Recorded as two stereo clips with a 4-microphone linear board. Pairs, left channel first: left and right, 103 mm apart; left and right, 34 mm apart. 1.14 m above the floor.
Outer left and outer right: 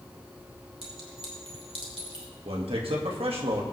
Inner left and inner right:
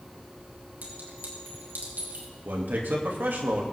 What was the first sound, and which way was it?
A clink, 75° right (ahead or behind).